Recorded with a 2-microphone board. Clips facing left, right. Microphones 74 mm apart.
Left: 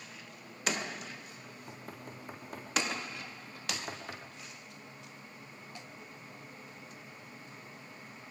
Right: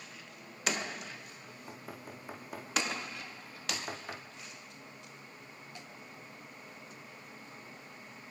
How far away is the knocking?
About 5 m.